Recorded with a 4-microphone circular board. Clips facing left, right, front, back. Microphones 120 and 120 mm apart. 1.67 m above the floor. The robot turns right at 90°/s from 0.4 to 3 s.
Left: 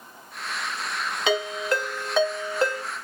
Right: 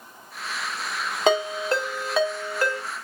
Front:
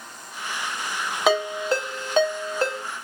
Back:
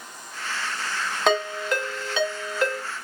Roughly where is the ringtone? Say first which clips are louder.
Right 4 dB, front 2 dB; right.